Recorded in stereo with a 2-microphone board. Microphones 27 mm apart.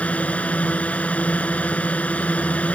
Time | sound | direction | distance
0.0 | a drone | 55° left (ahead or behind) | ?